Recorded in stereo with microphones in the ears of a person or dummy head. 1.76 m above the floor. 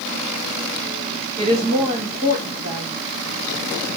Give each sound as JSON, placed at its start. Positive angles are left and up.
{"t": 1.4, "sound": "a woman speaking", "side_deg": -40, "distance_m": 1.2}